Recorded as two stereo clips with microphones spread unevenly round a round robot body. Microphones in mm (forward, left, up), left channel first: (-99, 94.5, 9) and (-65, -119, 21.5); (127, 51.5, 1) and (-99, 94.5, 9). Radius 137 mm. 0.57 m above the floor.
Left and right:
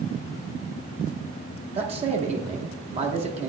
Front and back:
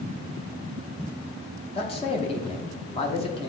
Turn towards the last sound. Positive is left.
turn(degrees=-45)